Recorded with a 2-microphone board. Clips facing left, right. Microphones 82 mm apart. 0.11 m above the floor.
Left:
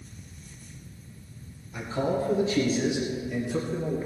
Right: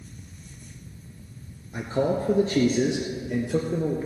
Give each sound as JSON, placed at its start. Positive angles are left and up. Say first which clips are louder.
{"t": 1.7, "sound": "a man speaking", "louder": "right 3 dB", "side_deg": -40, "distance_m": 1.6}